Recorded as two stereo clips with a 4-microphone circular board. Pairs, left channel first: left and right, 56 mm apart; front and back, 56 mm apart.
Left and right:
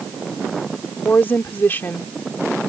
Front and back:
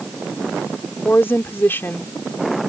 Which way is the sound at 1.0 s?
40° left.